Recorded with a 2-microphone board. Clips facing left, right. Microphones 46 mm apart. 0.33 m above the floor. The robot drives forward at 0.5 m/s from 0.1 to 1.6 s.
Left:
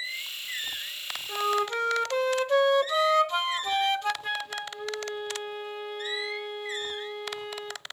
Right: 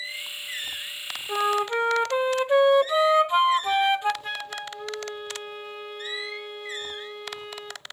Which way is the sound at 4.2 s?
Centre (ahead or behind).